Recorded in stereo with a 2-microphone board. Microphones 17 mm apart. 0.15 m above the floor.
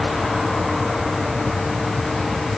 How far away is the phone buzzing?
No phone buzzing in this recording.